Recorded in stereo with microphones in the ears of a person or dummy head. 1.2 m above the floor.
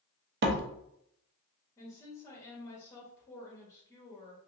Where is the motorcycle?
No motorcycle in this recording.